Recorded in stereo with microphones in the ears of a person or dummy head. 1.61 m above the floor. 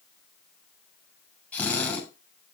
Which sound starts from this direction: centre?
A drill, at 1.5 s.